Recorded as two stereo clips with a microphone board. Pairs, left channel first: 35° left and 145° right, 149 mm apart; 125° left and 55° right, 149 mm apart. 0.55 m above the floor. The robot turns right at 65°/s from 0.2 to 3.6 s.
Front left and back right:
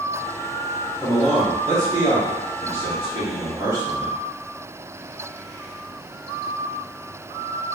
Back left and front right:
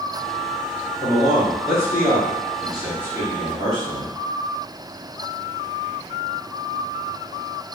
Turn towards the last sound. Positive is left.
turn(degrees=-85)